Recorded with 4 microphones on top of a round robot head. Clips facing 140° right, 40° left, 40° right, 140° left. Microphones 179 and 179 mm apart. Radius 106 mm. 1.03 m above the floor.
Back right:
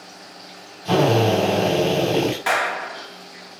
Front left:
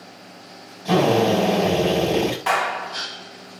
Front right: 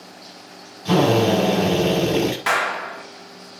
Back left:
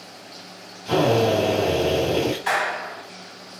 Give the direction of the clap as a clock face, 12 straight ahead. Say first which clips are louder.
Even, front right 1 dB; 2 o'clock.